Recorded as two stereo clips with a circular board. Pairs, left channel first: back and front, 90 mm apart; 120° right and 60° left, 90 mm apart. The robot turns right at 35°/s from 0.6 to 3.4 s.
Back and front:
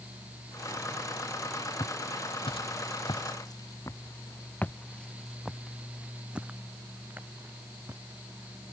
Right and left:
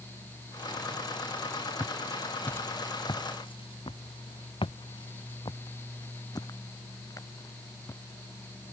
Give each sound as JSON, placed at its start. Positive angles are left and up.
{"t": 1.8, "sound": "footsteps", "azimuth_deg": 135}